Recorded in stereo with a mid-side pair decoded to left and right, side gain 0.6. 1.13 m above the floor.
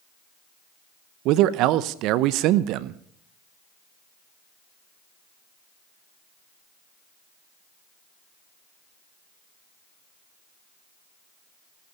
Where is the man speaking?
70° right, 0.7 m.